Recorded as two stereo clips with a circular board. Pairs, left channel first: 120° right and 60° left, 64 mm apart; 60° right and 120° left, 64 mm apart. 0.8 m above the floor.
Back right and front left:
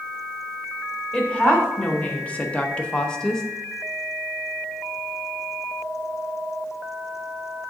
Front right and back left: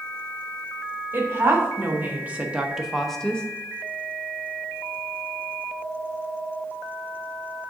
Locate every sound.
1.1 s a woman speaking: 170° left, 1.5 m; by 3.4 s 55° right, 0.7 m